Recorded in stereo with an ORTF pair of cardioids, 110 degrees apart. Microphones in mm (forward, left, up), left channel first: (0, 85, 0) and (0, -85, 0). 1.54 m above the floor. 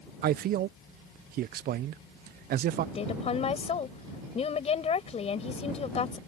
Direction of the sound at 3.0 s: 35° left.